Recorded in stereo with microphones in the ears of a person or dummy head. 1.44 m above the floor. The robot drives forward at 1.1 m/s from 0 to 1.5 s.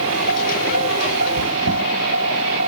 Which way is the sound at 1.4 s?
50° left (ahead or behind).